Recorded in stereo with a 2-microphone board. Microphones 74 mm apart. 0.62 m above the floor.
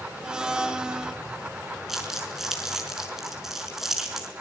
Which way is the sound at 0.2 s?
10° right (ahead or behind).